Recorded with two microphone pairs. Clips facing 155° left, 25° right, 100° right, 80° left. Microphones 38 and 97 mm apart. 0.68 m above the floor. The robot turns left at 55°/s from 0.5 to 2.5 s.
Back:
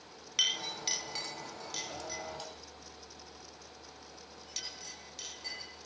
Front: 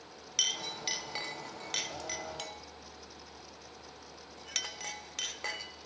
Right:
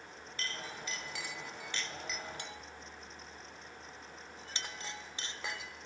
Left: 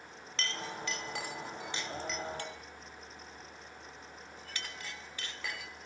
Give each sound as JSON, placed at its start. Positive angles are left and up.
{"t": 0.4, "sound": "a clink", "azimuth_deg": 75, "distance_m": 0.9}